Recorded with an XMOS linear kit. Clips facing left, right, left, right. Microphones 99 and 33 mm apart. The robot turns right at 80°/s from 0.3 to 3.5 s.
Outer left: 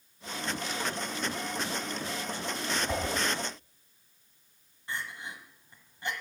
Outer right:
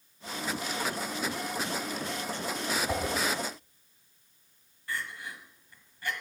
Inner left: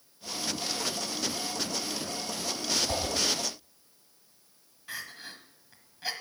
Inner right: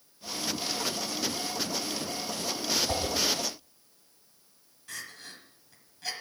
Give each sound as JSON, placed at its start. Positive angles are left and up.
{"t": 2.9, "sound": "a whoosh", "side_deg": -5, "distance_m": 2.0}
{"t": 4.9, "sound": "crying", "side_deg": 25, "distance_m": 1.3}